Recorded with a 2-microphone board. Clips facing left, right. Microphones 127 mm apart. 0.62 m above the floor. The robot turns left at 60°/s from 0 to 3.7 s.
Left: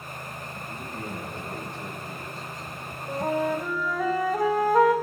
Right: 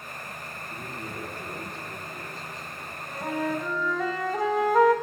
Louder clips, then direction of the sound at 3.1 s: Left 3 dB; 40° left.